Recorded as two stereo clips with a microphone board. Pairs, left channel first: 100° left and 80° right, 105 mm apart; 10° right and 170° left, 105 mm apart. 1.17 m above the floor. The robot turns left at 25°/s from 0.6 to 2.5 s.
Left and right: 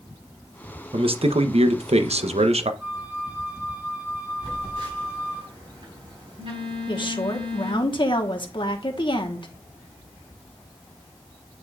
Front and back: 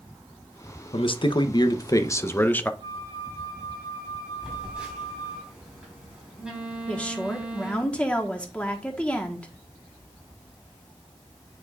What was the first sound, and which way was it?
A man speaking, 45° right.